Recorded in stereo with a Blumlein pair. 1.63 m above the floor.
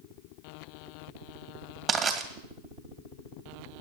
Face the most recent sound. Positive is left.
turn(degrees=-25)